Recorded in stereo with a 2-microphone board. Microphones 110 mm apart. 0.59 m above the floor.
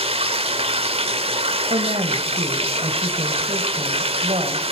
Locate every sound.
0.0 s running water: 65° right (ahead or behind), 2.0 m
1.7 s a woman speaking: 70° right (ahead or behind), 3 m